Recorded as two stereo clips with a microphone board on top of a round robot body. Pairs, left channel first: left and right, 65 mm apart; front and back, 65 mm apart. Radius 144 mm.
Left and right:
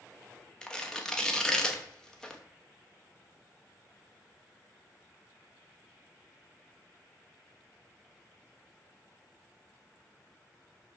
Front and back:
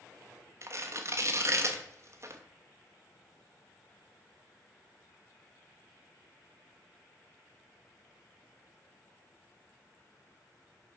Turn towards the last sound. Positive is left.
turn(degrees=165)